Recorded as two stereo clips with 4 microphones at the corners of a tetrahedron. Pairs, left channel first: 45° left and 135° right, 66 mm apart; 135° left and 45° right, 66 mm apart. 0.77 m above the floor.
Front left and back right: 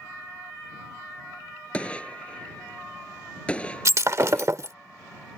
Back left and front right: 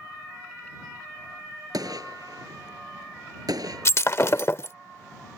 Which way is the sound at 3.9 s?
175° right.